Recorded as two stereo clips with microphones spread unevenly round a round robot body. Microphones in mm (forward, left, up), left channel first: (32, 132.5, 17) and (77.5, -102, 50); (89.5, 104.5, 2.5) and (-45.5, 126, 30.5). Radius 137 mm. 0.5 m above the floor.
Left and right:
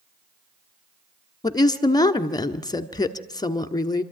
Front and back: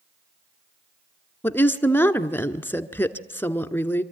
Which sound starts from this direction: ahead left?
A woman speaking, at 1.4 s.